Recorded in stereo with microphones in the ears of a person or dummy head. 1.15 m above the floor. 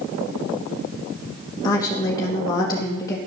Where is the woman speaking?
25° left (ahead or behind), 1.5 m.